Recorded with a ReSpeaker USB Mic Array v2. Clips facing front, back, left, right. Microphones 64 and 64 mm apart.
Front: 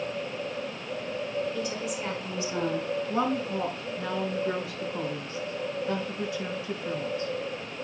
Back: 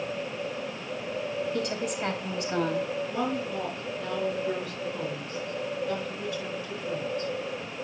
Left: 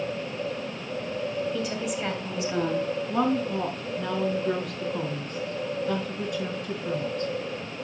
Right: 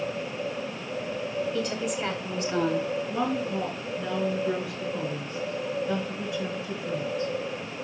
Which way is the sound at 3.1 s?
65° left.